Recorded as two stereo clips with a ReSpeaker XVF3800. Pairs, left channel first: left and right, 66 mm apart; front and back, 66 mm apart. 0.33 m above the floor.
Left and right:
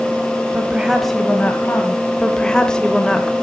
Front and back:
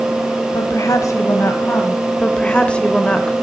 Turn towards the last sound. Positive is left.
turn(degrees=35)